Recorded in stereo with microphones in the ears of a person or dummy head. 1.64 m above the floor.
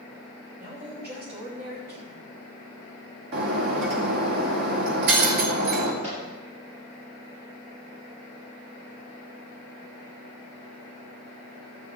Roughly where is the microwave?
Right.